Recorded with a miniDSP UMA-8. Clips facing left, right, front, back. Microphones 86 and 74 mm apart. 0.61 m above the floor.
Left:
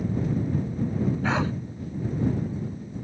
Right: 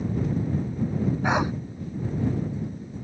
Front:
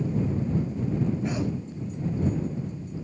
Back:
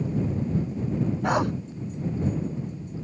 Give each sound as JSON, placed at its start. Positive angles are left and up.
{"t": 1.2, "sound": "a dog barking", "azimuth_deg": -165}